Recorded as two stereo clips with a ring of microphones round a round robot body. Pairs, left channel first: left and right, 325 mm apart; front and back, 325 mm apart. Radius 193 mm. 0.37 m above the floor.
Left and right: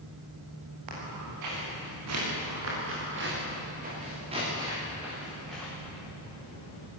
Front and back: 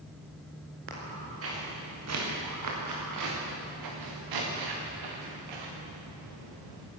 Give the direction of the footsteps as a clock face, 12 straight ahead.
4 o'clock.